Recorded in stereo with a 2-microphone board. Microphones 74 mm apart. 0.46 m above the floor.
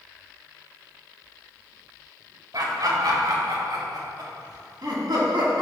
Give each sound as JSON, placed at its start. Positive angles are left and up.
{"t": 2.5, "sound": "laughter", "side_deg": -60, "distance_m": 1.5}